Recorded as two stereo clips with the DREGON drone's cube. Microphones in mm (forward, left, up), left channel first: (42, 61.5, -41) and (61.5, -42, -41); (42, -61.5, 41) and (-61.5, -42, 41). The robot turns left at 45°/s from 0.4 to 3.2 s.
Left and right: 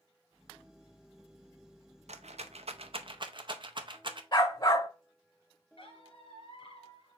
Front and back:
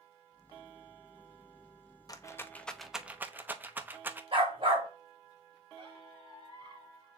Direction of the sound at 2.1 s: 65° right.